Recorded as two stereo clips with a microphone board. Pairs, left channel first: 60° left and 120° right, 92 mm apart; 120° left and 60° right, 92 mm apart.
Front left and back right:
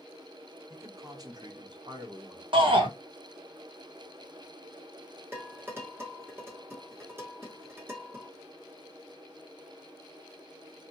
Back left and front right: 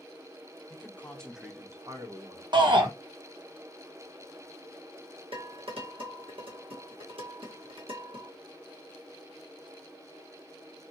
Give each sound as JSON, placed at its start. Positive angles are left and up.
{"t": 0.7, "sound": "a man speaking", "azimuth_deg": 180, "distance_m": 1.2}
{"t": 2.5, "sound": "a shout", "azimuth_deg": -95, "distance_m": 0.8}
{"t": 5.3, "sound": "dishes clattering", "azimuth_deg": -55, "distance_m": 1.3}